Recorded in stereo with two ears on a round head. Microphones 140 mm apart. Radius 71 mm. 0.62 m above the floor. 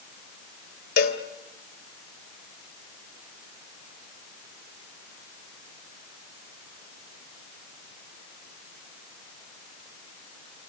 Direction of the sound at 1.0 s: 65° left (ahead or behind).